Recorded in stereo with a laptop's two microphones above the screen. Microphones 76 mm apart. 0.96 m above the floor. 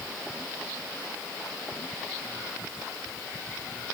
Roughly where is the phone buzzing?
I don't hear a phone buzzing.